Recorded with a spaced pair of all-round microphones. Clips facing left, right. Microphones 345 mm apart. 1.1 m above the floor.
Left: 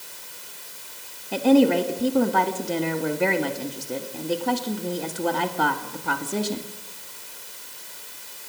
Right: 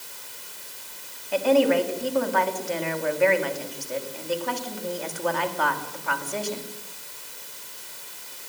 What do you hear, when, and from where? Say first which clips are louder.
1.3 s a woman speaking: left 3 dB; 50° left (ahead or behind), 2 m